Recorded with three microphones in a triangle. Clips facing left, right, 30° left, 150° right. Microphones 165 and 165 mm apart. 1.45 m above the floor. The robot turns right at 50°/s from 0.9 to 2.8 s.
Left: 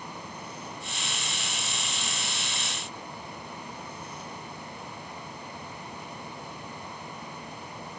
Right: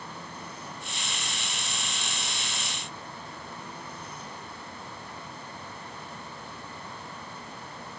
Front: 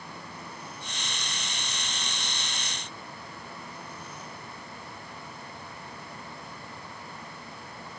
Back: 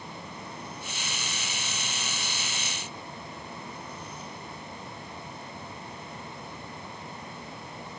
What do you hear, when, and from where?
Only background noise.